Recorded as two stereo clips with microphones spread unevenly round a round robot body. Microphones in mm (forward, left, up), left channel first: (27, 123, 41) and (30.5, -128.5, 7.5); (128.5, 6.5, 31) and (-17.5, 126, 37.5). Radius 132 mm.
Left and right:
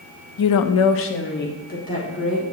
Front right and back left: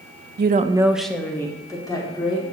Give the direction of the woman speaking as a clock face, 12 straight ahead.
8 o'clock.